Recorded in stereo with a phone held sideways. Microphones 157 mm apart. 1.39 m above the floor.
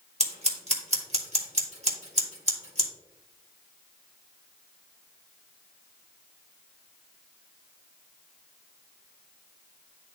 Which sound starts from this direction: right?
Scissors, at 0.2 s.